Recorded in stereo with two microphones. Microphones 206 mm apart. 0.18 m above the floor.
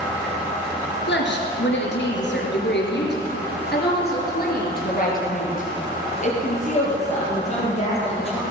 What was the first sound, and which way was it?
A woman speaking, 65° left (ahead or behind).